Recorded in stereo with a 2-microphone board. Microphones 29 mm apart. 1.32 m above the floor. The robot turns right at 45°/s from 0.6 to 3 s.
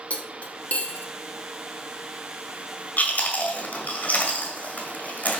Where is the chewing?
60° left (ahead or behind), 1.9 m.